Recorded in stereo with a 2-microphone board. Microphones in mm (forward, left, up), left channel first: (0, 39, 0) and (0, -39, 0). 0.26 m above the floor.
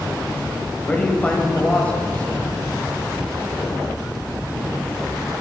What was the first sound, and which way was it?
A man speaking, 15° left (ahead or behind).